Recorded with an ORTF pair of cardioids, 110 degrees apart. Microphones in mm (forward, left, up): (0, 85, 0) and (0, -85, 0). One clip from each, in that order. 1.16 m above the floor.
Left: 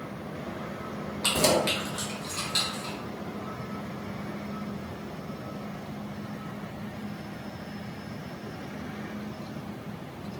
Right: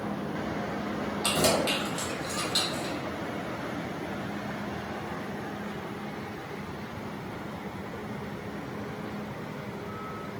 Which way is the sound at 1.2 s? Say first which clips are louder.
Left 2 dB; 20° left.